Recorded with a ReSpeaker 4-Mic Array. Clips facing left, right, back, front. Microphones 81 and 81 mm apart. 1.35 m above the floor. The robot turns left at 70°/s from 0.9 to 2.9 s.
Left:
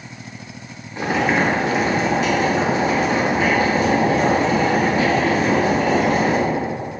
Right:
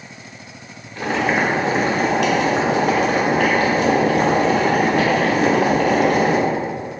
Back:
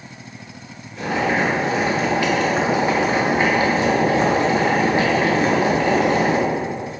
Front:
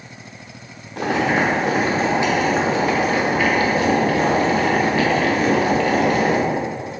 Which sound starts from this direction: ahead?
Boiling, at 1.0 s.